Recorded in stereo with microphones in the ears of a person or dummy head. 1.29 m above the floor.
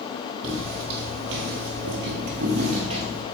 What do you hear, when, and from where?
0.4 s footsteps: 55° right (ahead or behind), 2.5 m; by 3.2 s 20° right (ahead or behind), 2 m